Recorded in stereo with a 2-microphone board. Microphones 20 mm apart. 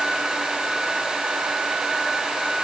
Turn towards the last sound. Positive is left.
No sound to turn to.